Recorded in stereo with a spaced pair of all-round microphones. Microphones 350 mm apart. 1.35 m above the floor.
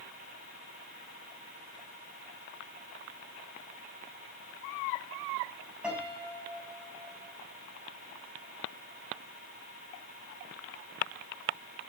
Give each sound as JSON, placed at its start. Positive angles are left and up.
{"t": 5.8, "sound": "a piano", "side_deg": -5, "distance_m": 4.5}